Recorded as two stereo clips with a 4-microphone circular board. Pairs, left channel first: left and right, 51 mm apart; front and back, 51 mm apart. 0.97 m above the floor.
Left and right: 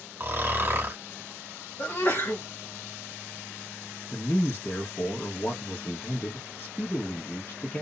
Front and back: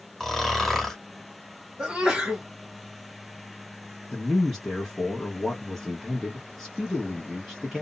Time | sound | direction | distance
0.2 | snoring | 85° right | 0.8 m
1.8 | a sneeze | 105° left | 1.5 m
4.1 | a man speaking | 80° left | 1.0 m